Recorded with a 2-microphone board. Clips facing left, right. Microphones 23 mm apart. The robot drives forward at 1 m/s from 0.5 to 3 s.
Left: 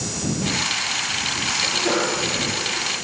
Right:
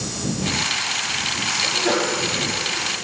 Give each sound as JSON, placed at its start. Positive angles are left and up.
{"t": 1.6, "sound": "a sneeze", "side_deg": 10, "distance_m": 8.0}